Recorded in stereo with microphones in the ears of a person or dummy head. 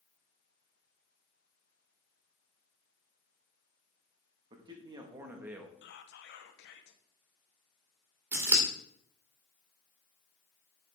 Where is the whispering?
55° left (ahead or behind), 1.0 m.